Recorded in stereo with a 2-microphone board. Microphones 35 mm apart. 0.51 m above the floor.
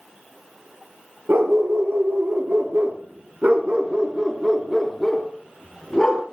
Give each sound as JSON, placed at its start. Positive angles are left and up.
{"t": 1.3, "sound": "a dog barking", "side_deg": -85, "distance_m": 4.0}